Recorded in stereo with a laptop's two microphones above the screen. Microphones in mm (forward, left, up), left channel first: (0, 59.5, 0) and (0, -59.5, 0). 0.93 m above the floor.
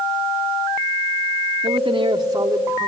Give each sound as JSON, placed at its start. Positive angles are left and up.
{"t": 1.6, "sound": "a man speaking", "side_deg": -55, "distance_m": 1.8}